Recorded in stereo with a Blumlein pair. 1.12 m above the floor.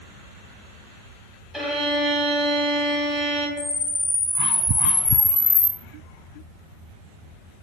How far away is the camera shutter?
About 0.7 m.